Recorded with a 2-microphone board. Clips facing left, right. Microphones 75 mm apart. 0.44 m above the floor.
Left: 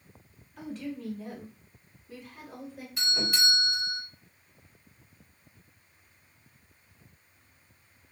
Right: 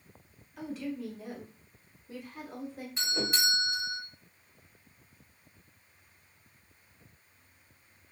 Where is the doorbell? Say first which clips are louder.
Left 1 dB; 30° right (ahead or behind), 1.7 m.